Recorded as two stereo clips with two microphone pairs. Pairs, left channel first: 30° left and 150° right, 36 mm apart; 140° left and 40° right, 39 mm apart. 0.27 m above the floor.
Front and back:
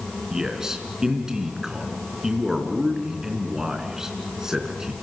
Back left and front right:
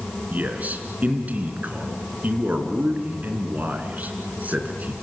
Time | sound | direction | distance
0.3 | a man speaking | 80° right | 3.5 m